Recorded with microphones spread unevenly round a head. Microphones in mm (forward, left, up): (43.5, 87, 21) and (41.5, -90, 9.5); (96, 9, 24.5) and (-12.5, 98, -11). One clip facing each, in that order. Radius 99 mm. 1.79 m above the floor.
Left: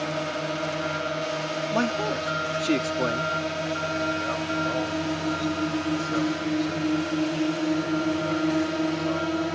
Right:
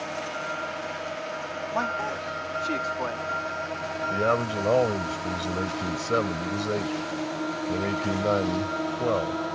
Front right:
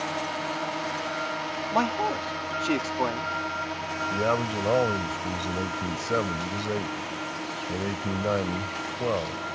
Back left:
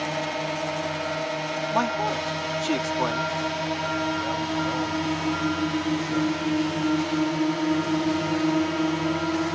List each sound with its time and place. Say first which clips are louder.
0.0 s a drone: left 5 dB, back left 3 dB; 100° left; by 9.6 s 155° left
1.7 s a man speaking: left 5 dB, even; 40° left
4.1 s a man speaking: right 3 dB, front right 1 dB; 65° right